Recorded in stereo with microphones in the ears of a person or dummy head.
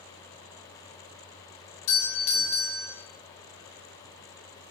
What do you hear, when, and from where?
1.9 s a doorbell: 35° left (ahead or behind), 1.0 m